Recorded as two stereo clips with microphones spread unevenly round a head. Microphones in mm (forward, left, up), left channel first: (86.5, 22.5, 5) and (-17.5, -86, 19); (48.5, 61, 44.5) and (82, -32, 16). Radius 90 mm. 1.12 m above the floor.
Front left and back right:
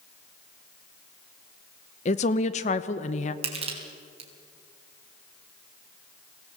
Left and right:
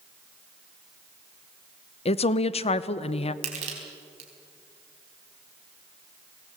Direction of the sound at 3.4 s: 85° right.